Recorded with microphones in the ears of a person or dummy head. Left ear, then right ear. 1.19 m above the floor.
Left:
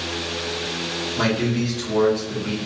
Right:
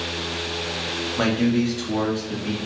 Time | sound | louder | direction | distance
1.2 | a man speaking | right 1 dB | 35° right (ahead or behind) | 1.3 m